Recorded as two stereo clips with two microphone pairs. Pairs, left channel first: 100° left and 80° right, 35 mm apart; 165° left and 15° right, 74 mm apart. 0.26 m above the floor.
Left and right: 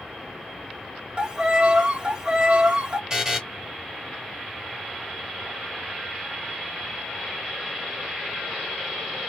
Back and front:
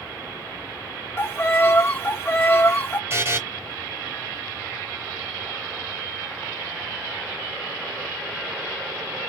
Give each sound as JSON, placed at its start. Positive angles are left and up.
{"t": 1.2, "sound": "a violin", "azimuth_deg": -140, "distance_m": 0.7}
{"t": 3.1, "sound": "a buzzer", "azimuth_deg": -20, "distance_m": 1.1}